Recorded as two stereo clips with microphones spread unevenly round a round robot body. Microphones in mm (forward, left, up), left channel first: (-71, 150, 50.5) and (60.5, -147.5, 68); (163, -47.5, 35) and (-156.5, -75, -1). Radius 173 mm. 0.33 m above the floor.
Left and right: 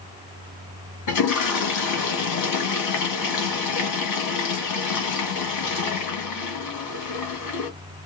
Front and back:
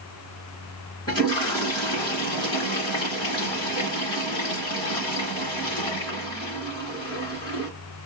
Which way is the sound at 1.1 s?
85° left.